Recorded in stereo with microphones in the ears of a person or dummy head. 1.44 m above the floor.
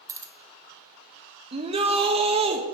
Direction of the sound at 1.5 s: 35° right (ahead or behind).